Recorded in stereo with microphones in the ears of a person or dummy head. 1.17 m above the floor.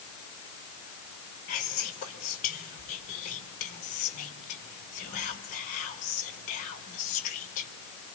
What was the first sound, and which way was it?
Whispering, 45° left (ahead or behind).